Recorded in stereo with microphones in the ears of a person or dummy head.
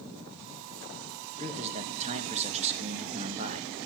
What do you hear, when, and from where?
1.4 s a man speaking: 35° right (ahead or behind), 2 m